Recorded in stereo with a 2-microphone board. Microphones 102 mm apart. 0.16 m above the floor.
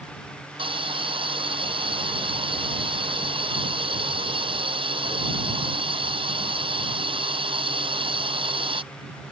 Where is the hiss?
60° right (ahead or behind).